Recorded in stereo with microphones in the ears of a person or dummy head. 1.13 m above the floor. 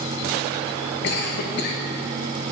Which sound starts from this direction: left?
A cough, at 1.0 s.